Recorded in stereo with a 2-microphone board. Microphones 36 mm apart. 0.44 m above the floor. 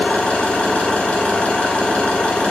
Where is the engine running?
40° left (ahead or behind), 2 m.